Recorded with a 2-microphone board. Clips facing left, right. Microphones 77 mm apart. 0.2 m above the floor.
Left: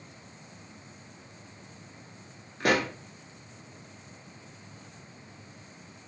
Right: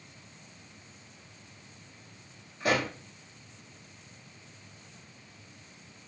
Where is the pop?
75° left (ahead or behind), 0.8 m.